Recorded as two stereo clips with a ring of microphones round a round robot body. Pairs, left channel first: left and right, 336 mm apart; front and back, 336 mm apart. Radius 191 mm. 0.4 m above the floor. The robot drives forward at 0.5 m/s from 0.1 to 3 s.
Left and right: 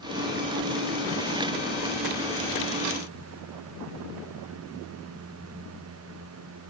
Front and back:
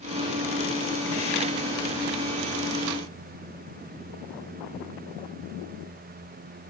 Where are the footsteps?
No footsteps in this recording.